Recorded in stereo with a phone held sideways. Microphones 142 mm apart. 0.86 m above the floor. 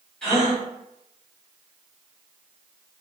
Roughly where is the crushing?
I don't hear crushing.